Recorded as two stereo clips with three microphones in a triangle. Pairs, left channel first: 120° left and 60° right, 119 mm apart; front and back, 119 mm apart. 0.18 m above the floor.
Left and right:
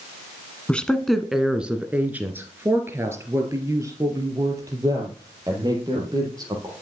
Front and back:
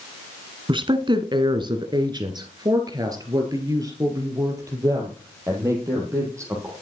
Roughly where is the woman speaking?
Behind.